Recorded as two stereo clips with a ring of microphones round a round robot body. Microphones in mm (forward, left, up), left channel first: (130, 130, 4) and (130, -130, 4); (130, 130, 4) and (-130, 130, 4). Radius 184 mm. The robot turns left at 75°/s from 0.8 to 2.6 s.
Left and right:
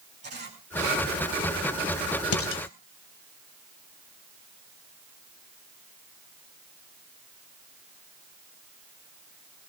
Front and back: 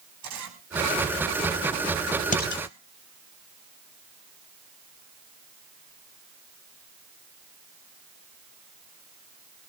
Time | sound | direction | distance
0.2 | a camera shutter | 160° right | 5.5 m
2.3 | dishes clattering | 60° left | 1.7 m